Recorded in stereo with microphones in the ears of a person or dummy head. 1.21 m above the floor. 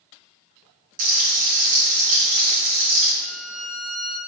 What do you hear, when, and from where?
1.0 s frying: 50° right (ahead or behind), 1.3 m
3.2 s a violin: centre (ahead or behind), 0.8 m